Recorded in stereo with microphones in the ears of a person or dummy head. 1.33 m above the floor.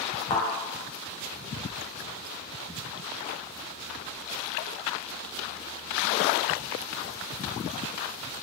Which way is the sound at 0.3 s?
25° left (ahead or behind).